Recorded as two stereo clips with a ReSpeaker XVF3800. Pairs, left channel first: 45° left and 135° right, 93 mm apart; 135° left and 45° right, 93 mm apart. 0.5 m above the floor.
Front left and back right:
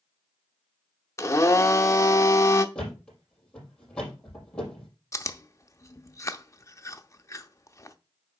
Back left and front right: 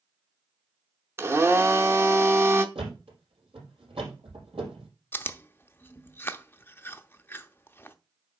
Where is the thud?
35° right, 5 m.